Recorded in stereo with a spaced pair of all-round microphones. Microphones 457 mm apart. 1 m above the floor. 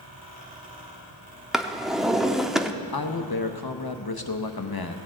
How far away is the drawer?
About 0.5 m.